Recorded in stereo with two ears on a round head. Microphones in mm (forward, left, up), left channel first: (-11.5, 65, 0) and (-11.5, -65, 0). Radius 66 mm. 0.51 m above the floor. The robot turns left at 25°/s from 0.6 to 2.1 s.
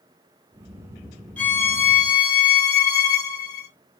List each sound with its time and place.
1.4 s a violin: 10° left (ahead or behind), 1.2 m; by 3.7 s 25° left (ahead or behind), 1.2 m